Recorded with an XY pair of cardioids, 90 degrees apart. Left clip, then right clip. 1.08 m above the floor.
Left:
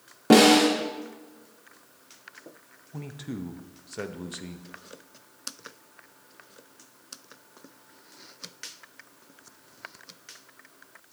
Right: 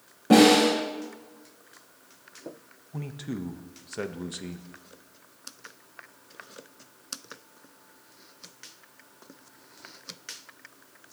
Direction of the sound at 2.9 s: 10° right.